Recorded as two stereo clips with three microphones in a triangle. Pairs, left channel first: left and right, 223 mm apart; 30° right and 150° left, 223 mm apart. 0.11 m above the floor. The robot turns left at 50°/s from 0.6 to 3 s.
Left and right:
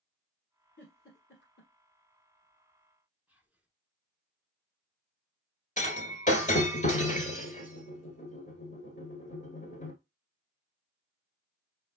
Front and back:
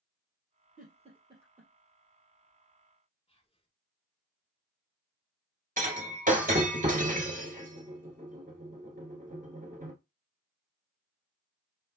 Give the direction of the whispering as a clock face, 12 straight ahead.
12 o'clock.